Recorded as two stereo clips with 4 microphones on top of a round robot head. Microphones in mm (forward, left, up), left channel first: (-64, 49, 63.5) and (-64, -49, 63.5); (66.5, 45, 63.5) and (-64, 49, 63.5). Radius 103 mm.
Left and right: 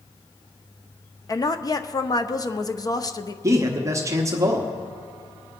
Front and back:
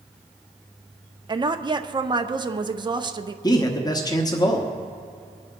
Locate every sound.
1.3 s a woman speaking: 130° left, 0.9 m
3.4 s a man speaking: 45° right, 1.2 m